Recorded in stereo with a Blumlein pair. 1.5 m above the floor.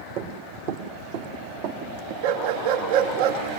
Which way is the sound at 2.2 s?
50° right.